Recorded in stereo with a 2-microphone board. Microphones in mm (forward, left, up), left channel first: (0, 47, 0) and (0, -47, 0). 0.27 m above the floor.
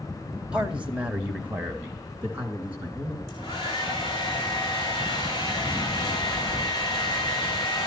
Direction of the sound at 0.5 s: 10° right (ahead or behind).